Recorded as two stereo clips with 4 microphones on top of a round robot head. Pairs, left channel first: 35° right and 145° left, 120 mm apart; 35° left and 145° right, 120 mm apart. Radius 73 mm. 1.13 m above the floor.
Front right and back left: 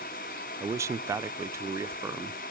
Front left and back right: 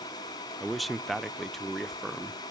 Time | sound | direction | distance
0.6 | a man speaking | 125° left | 0.6 m